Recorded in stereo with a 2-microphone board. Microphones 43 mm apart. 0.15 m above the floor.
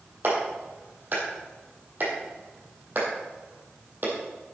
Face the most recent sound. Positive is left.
turn(degrees=-45)  # may be behind; listen again after turning